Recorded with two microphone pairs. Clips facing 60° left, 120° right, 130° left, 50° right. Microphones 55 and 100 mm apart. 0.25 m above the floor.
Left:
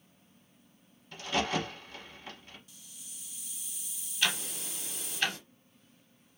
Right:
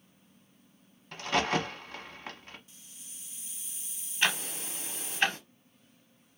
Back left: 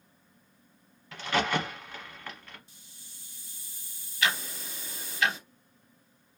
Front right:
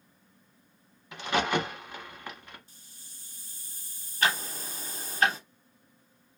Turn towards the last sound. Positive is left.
turn(degrees=-80)